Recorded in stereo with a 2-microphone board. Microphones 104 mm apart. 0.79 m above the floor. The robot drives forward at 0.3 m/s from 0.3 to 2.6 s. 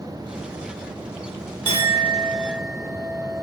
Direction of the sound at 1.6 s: 45° left (ahead or behind).